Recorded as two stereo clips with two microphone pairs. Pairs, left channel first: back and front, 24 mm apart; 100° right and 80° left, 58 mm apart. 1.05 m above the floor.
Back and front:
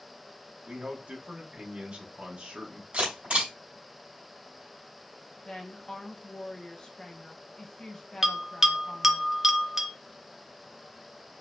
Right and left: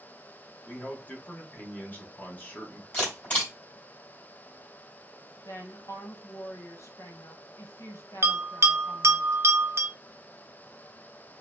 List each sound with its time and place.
0.7 s a man speaking: 40° right, 1.2 m
2.9 s a camera shutter: 35° right, 3 m
5.5 s a woman speaking: 120° right, 1.1 m
8.2 s a bell: 65° left, 0.6 m